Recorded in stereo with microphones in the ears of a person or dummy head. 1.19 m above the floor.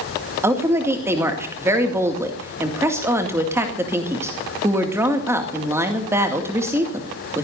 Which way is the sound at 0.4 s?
10° right (ahead or behind).